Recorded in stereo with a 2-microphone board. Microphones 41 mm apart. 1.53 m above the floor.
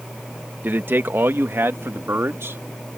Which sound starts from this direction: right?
A man speaking, at 0.6 s.